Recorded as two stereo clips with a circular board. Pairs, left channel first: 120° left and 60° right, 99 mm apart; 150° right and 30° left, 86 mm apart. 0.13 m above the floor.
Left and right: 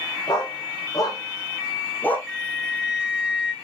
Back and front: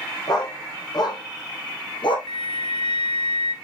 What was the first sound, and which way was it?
A dog barking, 165° left.